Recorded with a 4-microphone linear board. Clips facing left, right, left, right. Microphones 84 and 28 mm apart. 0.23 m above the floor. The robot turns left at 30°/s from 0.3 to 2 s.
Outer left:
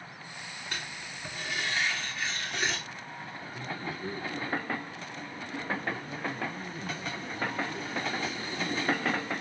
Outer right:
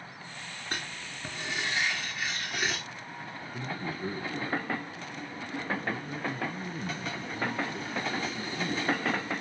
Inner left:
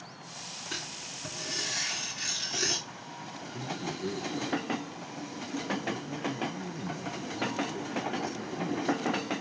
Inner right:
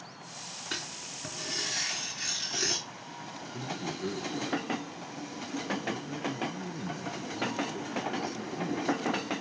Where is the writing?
130° right, 3.5 m; by 2.8 s 170° right, 3.5 m.